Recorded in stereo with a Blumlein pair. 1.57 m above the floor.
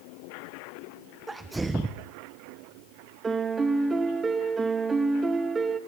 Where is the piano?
15° right, 1.7 m.